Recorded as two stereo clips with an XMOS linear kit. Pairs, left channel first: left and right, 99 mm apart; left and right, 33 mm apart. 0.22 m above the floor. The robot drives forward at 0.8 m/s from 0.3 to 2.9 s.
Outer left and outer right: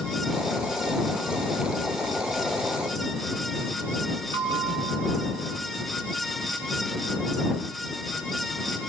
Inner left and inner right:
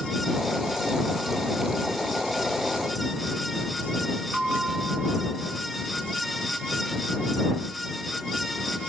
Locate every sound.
4.3 s a bell: 65° right (ahead or behind), 3 m